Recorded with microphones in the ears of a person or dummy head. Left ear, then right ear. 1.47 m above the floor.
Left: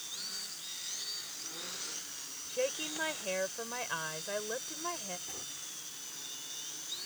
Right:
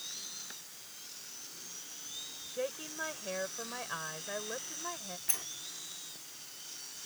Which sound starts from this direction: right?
A sliding door, at 5.3 s.